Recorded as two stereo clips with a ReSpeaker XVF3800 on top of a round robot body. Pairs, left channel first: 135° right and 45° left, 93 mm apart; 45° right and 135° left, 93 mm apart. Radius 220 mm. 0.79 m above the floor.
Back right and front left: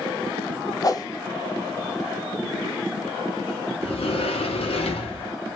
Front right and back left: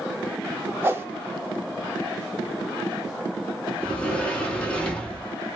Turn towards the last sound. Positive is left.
turn(degrees=-125)